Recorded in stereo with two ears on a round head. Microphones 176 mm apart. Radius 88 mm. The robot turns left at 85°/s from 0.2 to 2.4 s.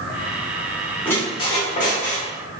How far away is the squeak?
About 0.8 m.